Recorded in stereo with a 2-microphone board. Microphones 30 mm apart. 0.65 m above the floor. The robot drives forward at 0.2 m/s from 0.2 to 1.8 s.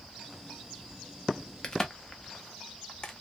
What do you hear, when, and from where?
1.6 s a crack: 25° left (ahead or behind), 0.7 m